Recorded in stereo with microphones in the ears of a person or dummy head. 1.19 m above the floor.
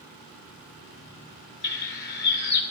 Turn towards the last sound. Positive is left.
turn(degrees=50)  # may be behind; listen again after turning